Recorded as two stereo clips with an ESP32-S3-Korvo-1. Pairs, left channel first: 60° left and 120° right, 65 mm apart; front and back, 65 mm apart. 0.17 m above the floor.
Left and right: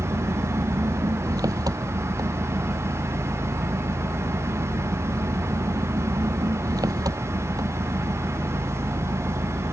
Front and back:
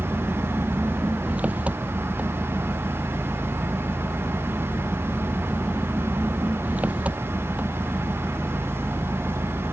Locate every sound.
0.0 s an engine running: 115° right